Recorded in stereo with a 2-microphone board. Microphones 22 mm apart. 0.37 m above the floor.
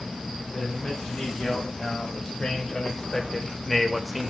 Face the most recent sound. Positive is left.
turn(degrees=-15)  # may be behind; listen again after turning